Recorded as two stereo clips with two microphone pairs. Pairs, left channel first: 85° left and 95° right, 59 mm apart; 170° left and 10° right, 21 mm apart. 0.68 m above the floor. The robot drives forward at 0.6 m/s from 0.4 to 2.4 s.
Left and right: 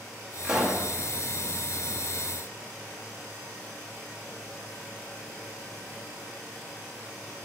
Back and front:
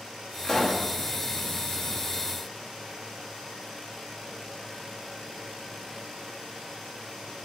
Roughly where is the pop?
Behind.